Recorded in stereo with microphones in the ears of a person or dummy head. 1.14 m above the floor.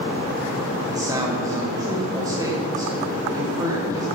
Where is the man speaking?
20° right (ahead or behind), 4.5 m.